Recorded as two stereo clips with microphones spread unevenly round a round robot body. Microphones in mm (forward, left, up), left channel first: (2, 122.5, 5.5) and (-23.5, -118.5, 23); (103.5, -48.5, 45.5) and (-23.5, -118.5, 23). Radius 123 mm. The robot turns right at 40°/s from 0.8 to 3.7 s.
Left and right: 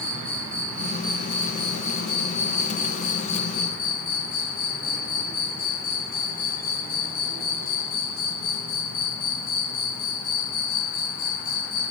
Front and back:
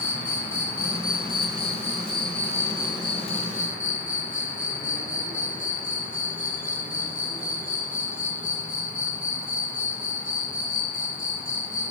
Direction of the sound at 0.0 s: Straight ahead.